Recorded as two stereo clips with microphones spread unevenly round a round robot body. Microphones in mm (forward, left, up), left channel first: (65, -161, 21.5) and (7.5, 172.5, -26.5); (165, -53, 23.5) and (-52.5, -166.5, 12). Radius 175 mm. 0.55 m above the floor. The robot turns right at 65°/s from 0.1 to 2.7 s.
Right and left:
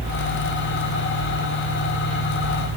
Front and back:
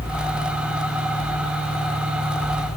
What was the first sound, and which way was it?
Only background noise.